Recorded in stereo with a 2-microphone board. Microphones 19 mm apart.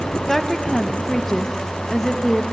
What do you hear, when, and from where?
0.3 s a woman speaking: 25° left (ahead or behind), 1.3 m